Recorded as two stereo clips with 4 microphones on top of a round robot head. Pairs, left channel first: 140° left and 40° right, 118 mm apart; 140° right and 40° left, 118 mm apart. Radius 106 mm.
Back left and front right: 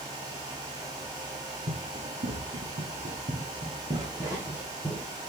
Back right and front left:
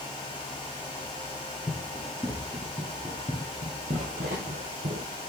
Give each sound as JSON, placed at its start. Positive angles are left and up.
{"t": 1.7, "sound": "running footsteps", "azimuth_deg": -45, "distance_m": 3.0}